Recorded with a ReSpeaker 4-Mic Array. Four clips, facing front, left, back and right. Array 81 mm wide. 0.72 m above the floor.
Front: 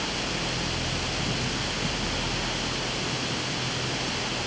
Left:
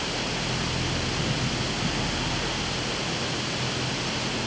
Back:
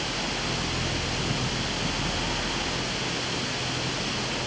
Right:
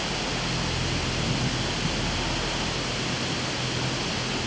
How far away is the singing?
No singing in this recording.